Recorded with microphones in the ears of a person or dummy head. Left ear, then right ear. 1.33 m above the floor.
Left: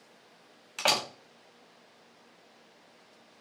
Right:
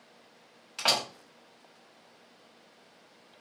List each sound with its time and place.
0.8 s a door slam: 15° left (ahead or behind), 0.7 m